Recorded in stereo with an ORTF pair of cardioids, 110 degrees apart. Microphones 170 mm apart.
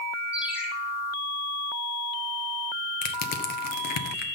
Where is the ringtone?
5° right, 8 m.